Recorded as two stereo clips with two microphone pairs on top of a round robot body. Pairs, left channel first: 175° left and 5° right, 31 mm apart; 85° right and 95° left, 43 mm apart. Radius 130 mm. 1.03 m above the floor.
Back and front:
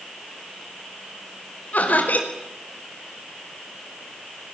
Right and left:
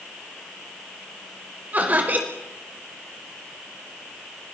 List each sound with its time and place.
1.7 s laughter: 145° left, 4.5 m